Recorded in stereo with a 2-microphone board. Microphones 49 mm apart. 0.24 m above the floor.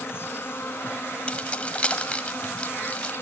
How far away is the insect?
About 1.4 m.